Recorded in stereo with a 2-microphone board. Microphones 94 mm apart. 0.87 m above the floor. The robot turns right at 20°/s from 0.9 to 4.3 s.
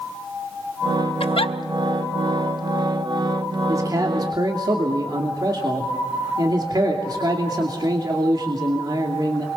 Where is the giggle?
75° left (ahead or behind), 0.7 m.